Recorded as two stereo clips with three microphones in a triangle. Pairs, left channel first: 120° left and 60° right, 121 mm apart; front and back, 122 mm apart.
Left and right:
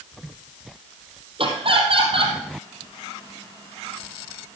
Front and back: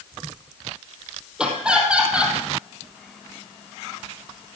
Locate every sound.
1.4 s laughter: 100° right, 3.5 m